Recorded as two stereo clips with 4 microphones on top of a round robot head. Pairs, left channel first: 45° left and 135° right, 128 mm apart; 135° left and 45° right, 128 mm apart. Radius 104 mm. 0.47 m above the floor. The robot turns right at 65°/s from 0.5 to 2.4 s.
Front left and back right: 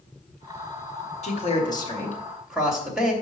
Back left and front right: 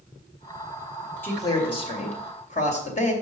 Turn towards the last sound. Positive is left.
turn(degrees=140)